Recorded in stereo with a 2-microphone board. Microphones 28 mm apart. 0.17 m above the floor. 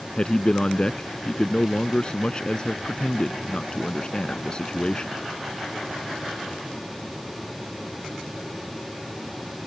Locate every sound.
0.2 s a man speaking: 30° left (ahead or behind)